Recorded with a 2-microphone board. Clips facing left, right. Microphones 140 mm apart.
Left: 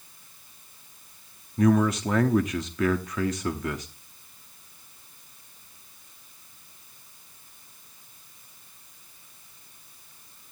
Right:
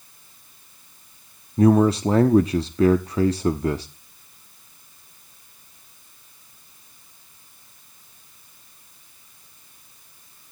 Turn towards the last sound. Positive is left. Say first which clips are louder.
# right 5 dB
turn(degrees=-30)  # may be behind; listen again after turning